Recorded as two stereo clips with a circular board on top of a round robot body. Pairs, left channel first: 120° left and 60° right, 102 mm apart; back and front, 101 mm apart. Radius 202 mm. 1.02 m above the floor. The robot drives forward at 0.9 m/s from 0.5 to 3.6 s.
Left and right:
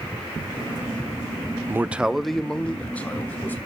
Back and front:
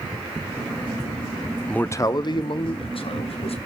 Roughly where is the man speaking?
Right.